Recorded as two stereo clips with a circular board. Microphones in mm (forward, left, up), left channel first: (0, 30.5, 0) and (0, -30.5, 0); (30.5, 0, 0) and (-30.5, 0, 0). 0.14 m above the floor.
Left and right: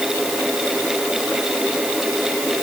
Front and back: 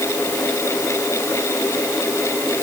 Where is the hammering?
I don't hear hammering.